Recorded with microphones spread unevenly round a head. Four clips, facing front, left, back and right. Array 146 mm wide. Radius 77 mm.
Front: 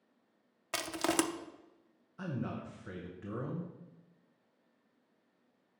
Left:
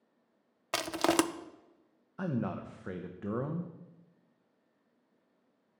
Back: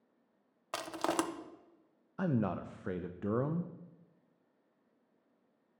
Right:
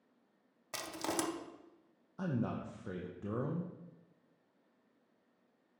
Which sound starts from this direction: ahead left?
Crushing, at 0.7 s.